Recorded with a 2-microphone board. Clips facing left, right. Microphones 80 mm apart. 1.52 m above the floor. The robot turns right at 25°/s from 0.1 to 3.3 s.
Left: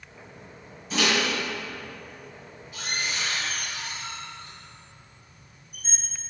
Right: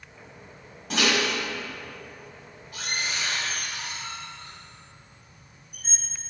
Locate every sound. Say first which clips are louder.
0.9 s a microwave: even; 75° right (ahead or behind), 1.5 m; by 6.0 s 40° right (ahead or behind), 1.5 m